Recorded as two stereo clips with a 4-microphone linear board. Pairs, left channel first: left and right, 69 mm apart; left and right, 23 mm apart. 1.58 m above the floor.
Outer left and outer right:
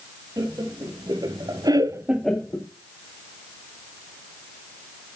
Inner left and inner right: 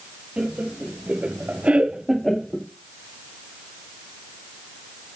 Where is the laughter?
65° right (ahead or behind), 2.5 m; by 2.7 s 30° left (ahead or behind), 1.0 m.